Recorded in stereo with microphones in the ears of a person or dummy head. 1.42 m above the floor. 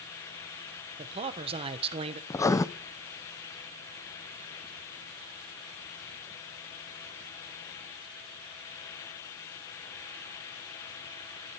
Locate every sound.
1.0 s a man speaking: 30° right (ahead or behind), 1.4 m
2.3 s writing: 15° left (ahead or behind), 0.8 m